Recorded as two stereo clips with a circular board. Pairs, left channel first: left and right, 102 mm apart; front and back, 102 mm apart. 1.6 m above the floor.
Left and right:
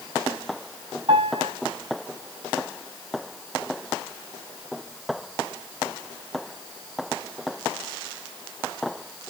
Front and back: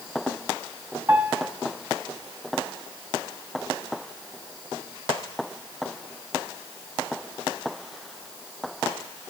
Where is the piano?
120° right, 6.5 m.